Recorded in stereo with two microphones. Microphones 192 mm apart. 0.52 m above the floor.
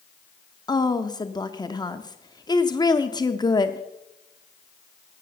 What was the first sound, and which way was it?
A woman speaking, 20° left (ahead or behind).